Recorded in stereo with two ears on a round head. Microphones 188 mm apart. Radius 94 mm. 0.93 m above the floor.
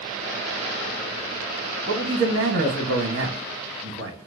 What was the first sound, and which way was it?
A man speaking, 60° right (ahead or behind).